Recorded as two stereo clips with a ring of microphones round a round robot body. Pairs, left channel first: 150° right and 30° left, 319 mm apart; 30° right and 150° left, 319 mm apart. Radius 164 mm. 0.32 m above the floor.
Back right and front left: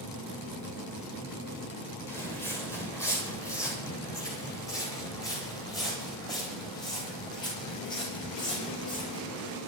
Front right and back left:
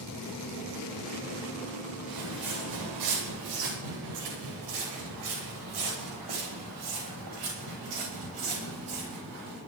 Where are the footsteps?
125° left, 7.5 m; by 9.6 s 135° left, 14 m.